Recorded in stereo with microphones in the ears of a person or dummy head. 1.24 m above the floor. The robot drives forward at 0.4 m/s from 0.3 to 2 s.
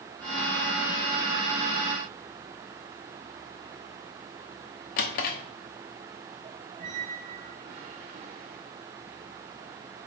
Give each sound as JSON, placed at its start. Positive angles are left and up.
{"t": 5.0, "sound": "a drawer", "side_deg": 50, "distance_m": 0.9}
{"t": 6.8, "sound": "a squeak", "side_deg": -30, "distance_m": 0.7}